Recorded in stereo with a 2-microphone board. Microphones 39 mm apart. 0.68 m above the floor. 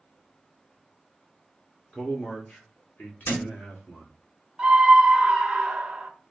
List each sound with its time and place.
1.9 s a man speaking: 25° left (ahead or behind), 0.9 m; by 4.1 s 60° left (ahead or behind), 2 m
3.2 s a thud: 75° left (ahead or behind), 1.7 m
4.6 s a scream: 25° right (ahead or behind), 0.7 m